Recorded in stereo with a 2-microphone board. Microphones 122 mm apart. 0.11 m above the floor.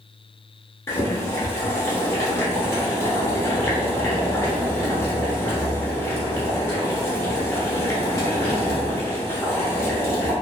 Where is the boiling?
25° left (ahead or behind), 1.1 m.